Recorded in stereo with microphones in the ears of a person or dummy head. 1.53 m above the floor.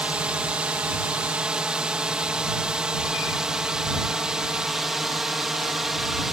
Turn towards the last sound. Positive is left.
turn(degrees=0)  # may be behind; listen again after turning